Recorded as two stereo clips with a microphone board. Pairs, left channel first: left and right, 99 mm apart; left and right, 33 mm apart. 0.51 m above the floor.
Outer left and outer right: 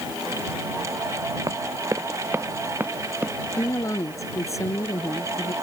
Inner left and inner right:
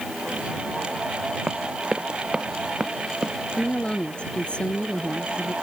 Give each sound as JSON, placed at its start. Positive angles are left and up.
{"t": 1.5, "sound": "running footsteps", "side_deg": -35}
{"t": 3.5, "sound": "a woman speaking", "side_deg": 30}